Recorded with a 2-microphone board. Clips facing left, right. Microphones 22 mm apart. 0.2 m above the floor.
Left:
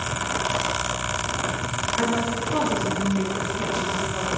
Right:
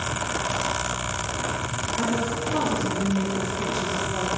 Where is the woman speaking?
25° left (ahead or behind), 4.5 m; by 4.3 s 10° right (ahead or behind), 6 m.